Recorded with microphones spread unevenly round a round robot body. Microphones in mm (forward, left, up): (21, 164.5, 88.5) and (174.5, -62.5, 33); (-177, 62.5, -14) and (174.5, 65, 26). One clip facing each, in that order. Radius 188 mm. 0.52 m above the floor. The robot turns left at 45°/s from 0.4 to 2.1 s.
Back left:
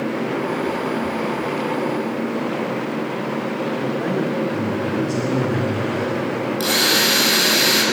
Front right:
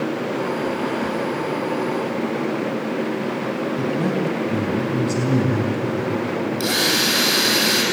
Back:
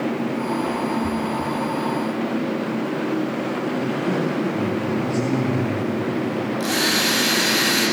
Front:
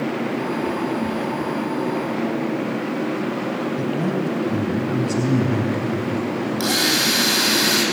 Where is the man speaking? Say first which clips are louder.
Front right 1 dB, back 1 dB; 20° right, 4.5 m.